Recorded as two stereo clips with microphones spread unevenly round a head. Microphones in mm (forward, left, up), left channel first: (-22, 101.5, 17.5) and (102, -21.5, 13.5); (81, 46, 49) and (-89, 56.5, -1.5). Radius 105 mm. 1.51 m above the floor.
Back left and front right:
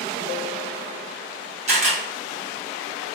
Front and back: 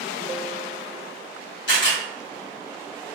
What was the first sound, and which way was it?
A camera shutter, 5° left.